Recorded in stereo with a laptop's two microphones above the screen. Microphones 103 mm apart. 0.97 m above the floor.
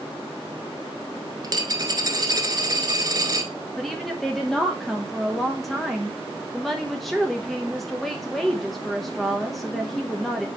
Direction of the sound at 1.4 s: 40° right (ahead or behind).